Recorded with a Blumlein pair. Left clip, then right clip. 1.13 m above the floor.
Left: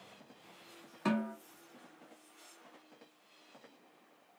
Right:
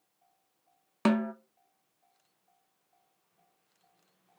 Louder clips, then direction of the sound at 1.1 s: Right 6 dB; 50° right.